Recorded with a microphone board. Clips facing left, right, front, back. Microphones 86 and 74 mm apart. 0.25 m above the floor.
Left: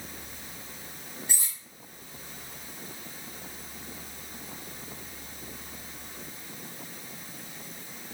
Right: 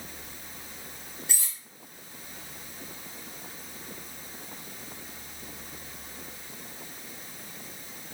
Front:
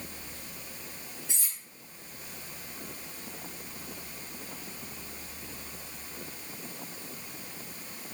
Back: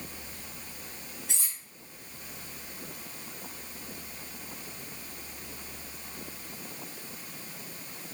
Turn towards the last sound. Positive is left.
turn(degrees=165)